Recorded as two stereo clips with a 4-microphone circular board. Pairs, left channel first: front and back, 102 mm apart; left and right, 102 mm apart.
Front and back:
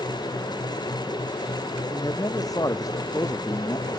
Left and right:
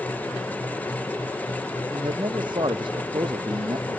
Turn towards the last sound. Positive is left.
turn(degrees=-55)